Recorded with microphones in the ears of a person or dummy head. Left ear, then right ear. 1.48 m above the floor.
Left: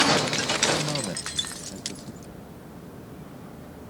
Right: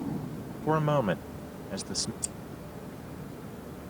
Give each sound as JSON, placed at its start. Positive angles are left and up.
{"t": 0.7, "sound": "a man speaking", "side_deg": -70}
{"t": 2.2, "sound": "scissors", "side_deg": -65}